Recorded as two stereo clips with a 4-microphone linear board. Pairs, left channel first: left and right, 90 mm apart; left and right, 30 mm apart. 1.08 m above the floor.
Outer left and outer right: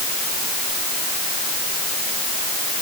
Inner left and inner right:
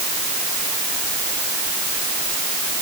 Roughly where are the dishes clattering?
I don't hear dishes clattering.